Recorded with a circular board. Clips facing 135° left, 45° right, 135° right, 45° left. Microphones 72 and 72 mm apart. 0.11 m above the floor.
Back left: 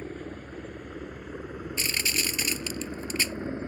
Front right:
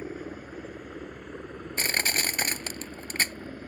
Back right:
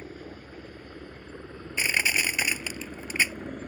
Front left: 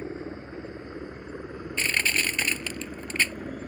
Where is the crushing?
60° right.